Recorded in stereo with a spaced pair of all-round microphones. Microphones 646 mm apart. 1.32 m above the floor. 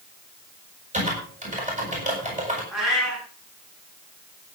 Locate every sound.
0.9 s typing on a keyboard: 10° right (ahead or behind), 8.5 m
2.7 s a cat meowing: centre (ahead or behind), 7.5 m